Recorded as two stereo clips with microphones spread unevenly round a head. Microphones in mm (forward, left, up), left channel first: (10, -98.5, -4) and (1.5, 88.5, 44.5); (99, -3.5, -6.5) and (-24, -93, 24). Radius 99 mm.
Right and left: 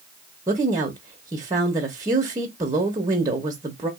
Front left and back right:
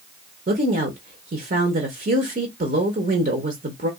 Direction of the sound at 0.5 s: 170° left.